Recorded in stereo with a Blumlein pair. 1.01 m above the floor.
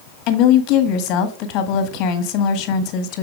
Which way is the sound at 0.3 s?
40° left.